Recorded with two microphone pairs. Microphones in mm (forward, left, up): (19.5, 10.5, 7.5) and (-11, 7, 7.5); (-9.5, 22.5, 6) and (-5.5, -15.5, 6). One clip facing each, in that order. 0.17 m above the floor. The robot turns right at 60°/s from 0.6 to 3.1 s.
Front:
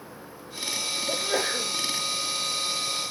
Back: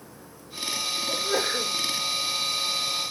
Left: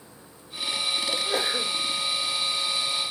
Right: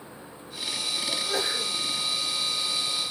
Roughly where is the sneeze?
Ahead left.